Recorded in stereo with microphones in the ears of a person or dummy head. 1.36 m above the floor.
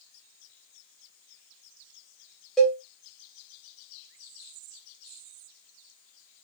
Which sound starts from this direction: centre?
A cowbell, at 2.6 s.